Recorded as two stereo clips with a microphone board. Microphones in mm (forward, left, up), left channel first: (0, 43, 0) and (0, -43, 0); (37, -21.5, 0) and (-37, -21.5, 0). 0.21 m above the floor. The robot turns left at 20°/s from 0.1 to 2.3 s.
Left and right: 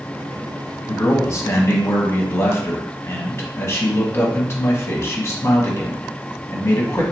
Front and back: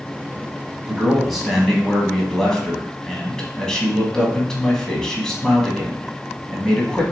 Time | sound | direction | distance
0.9 | a man speaking | 100° left | 1.1 m